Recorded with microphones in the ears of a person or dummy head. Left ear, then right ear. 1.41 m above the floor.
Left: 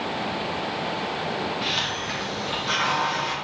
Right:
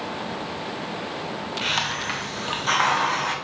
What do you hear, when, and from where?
1.6 s a hiss: 35° right (ahead or behind), 0.8 m